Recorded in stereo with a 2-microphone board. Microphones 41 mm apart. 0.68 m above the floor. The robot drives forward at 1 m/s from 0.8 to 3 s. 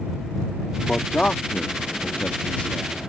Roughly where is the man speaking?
Left.